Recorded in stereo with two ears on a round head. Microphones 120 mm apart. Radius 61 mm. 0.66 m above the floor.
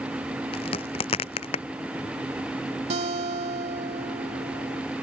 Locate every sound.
0.5 s a crack: 40° left (ahead or behind)
2.9 s a guitar: 55° right (ahead or behind)